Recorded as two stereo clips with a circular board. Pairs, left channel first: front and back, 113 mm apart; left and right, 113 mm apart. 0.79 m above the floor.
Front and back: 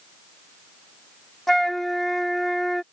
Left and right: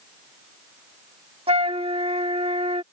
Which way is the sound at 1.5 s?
90° right.